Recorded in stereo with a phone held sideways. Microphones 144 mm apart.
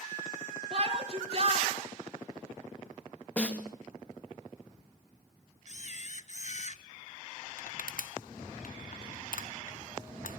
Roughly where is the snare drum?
Centre.